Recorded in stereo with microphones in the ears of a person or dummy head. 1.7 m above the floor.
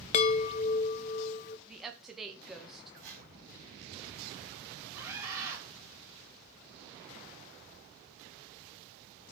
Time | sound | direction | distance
0.1 | a chime | 35° left (ahead or behind) | 0.5 m
1.7 | a woman speaking | centre (ahead or behind) | 1.6 m
3.0 | a whoosh | 65° right (ahead or behind) | 5 m
4.9 | a scream | 20° right (ahead or behind) | 5 m